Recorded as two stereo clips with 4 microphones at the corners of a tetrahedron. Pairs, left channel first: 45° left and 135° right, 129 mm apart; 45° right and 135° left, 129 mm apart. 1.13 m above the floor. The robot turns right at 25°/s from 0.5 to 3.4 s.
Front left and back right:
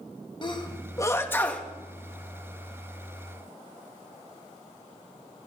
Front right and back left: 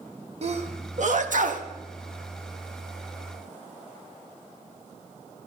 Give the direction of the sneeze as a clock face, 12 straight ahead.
9 o'clock.